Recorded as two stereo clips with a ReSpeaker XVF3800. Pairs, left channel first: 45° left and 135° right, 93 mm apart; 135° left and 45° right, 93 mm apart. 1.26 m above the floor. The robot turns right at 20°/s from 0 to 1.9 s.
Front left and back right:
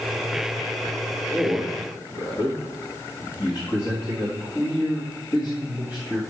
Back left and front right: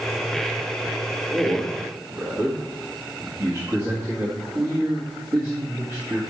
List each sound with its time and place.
1.3 s a man speaking: 5° right, 1.5 m; by 6.2 s 5° left, 1.5 m